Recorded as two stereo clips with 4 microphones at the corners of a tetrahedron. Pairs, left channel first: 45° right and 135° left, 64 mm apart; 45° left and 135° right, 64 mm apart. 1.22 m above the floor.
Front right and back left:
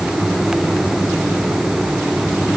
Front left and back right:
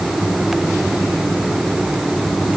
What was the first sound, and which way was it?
Only background noise.